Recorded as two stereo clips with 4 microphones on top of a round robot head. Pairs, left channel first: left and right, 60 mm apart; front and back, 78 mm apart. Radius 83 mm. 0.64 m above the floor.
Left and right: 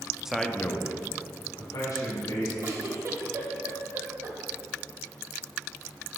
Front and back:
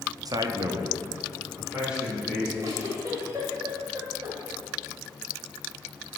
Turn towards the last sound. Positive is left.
turn(degrees=-125)